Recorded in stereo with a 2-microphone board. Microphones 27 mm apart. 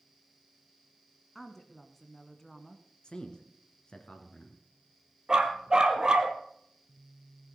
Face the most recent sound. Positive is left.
turn(degrees=-25)  # may be behind; listen again after turning